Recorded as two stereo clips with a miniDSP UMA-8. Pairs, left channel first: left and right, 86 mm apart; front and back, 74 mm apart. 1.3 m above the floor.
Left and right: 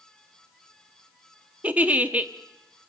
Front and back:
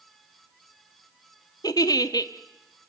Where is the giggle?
15° right, 1.2 m.